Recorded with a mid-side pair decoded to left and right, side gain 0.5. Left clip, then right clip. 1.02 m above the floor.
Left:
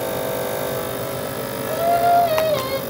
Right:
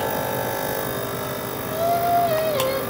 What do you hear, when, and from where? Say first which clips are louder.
1.7 s singing: left 4 dB; 40° left, 2 m